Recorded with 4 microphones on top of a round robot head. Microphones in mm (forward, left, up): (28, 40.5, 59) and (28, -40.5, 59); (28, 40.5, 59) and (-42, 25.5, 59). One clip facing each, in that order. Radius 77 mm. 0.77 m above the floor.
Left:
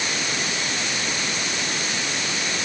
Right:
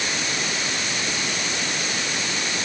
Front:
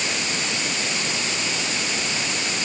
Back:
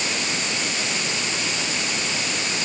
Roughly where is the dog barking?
I don't hear a dog barking.